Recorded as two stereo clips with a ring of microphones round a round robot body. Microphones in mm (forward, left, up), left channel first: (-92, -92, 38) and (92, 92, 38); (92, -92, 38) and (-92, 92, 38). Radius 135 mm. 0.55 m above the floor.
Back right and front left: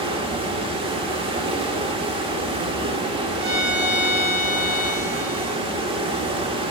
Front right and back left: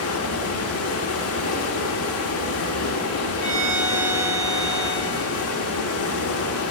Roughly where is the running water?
Ahead right.